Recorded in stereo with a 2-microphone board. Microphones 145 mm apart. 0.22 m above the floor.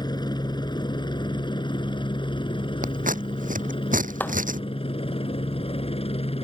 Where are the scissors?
65° right (ahead or behind).